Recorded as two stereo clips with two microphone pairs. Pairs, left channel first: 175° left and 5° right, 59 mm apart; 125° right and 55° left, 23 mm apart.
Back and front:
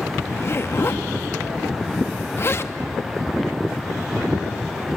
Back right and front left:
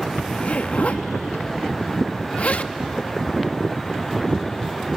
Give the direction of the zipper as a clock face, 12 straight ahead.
5 o'clock.